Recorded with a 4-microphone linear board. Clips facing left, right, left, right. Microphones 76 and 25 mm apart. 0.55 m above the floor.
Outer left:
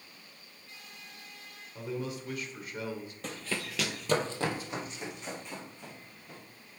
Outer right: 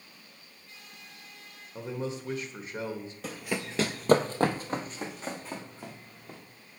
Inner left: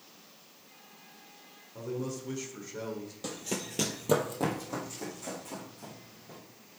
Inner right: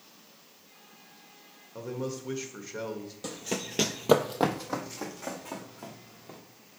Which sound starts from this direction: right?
A man speaking, at 1.8 s.